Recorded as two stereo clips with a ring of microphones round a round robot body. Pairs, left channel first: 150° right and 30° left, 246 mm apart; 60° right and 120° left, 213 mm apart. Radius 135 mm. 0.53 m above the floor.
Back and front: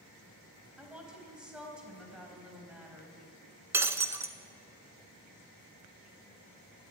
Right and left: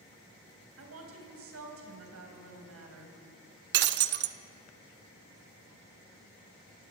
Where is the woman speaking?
115° left, 4 m.